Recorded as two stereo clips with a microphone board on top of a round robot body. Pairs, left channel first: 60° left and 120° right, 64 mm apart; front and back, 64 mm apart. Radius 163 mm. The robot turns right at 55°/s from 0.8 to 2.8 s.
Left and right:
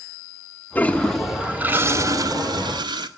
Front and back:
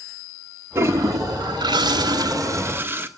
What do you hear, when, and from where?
0.8 s a toilet flushing: 125° left, 1.4 m; by 3.1 s 125° right, 1.4 m